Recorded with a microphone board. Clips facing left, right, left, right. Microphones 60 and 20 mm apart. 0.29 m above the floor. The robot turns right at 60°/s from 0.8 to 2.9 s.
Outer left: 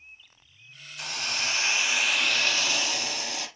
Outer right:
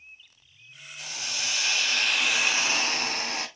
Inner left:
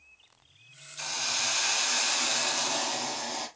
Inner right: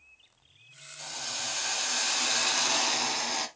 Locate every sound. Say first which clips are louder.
1.0 s a hiss: outer left 4 dB, inner left 5 dB; 105° left, 1.1 m; by 3.5 s 135° right, 1.1 m